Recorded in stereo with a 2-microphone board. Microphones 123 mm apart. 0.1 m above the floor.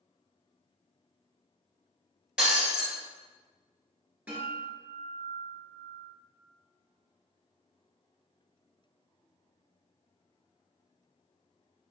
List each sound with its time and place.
2.4 s breaking glass: 10° right (ahead or behind), 1.2 m
4.3 s a guitar: 10° right (ahead or behind), 1.2 m